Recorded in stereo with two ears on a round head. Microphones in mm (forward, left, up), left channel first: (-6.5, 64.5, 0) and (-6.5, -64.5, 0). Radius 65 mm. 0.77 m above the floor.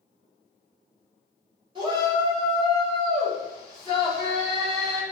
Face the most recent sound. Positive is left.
turn(degrees=-35)  # may be behind; listen again after turning